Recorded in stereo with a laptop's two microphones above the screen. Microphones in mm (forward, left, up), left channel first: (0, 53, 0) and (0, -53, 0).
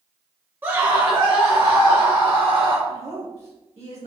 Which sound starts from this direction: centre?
A scream, at 0.6 s.